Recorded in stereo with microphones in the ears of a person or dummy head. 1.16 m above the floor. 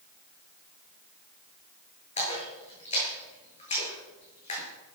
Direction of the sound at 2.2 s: 30° left (ahead or behind).